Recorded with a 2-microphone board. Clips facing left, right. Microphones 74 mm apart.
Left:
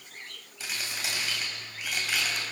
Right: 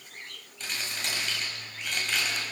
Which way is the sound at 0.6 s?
5° left (ahead or behind).